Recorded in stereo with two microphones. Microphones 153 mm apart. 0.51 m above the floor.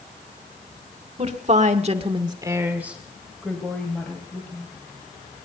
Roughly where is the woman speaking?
Right.